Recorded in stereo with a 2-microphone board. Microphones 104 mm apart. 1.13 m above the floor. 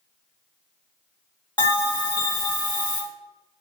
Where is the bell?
45° left (ahead or behind), 1.4 m.